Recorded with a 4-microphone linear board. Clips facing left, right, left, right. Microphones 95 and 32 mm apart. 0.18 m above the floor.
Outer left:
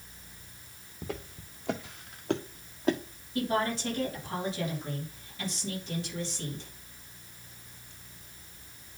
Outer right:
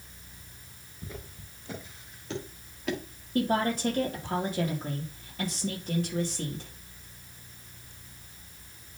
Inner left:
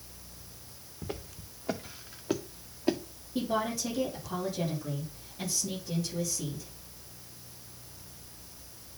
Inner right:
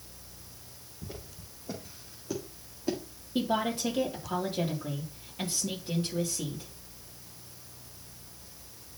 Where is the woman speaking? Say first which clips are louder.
Outer right 3 dB, inner right 2 dB; 50° right (ahead or behind), 5.5 m.